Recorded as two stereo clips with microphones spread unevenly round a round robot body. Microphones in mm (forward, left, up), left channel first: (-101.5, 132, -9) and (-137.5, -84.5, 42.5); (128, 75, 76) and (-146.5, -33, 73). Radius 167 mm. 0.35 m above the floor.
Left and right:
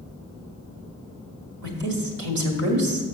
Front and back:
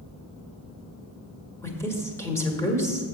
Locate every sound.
1.6 s a woman speaking: 60° right, 1.7 m